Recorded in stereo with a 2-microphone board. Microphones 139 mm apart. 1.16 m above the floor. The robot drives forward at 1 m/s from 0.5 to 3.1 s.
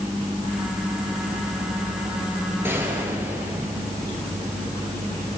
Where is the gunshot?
15° right (ahead or behind), 5 m.